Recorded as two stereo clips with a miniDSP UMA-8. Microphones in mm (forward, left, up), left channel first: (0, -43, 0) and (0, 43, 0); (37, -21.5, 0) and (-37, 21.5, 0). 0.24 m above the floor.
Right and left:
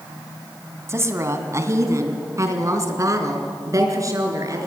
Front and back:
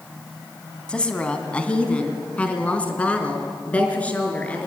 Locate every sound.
0.9 s a woman speaking: 45° left, 2 m; by 4.7 s 40° left, 4 m